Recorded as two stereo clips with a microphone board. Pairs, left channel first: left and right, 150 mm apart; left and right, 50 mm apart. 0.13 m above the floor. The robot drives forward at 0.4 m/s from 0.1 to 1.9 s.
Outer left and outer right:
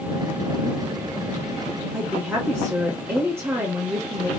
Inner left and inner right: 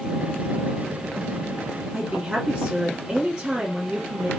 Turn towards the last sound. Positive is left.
turn(degrees=-15)  # may be behind; listen again after turning